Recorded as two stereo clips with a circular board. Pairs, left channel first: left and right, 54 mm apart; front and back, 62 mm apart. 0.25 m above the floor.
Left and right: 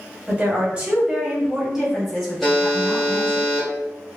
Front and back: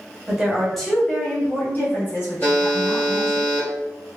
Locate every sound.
0.3 s a woman speaking: 110° right, 1.1 m; by 3.4 s 5° left, 1.6 m
2.4 s a buzzer: 10° left, 1.1 m